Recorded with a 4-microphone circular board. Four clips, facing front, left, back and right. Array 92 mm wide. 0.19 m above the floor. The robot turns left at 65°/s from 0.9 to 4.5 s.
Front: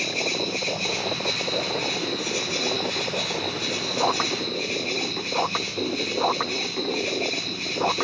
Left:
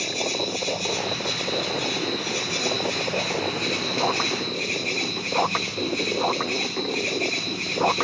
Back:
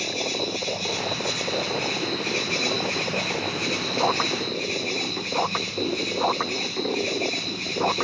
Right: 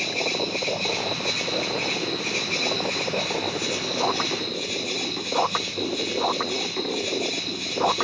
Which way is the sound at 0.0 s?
35° right.